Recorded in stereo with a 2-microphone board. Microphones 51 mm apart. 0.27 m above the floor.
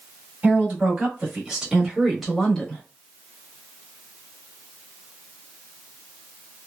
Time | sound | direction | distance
0.4 | a woman speaking | 40° right (ahead or behind) | 1.5 m